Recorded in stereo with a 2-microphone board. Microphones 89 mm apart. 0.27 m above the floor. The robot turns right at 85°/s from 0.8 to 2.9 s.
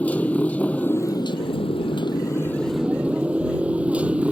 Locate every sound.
0.0 s a motorcycle: 15° left; by 4.3 s 165° right